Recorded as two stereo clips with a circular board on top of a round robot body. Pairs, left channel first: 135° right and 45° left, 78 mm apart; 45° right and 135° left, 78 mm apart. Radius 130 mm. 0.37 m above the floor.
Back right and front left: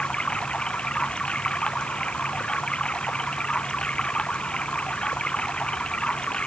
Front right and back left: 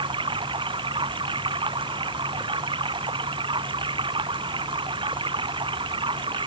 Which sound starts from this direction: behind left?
Running water, at 0.0 s.